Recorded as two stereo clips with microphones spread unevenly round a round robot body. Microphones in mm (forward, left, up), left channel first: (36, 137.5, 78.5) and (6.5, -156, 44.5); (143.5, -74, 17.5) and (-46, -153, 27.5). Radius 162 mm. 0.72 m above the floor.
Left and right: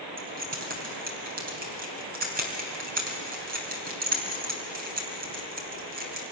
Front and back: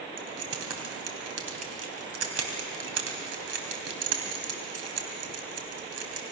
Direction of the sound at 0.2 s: 160° right.